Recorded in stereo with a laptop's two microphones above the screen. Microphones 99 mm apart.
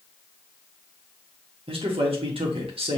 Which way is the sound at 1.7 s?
70° right (ahead or behind).